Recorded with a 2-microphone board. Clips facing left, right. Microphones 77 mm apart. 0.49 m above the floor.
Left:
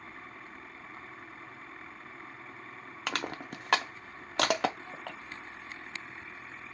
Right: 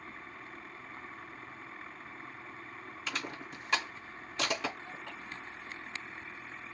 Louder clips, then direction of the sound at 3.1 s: Left 5 dB; 70° left (ahead or behind).